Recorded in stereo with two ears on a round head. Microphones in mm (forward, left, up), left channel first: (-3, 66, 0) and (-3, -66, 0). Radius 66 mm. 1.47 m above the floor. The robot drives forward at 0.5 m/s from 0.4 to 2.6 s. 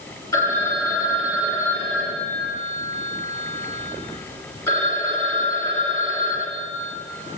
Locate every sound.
0.3 s a phone ringing: 20° left (ahead or behind), 1.9 m; by 6.9 s 15° left (ahead or behind), 3 m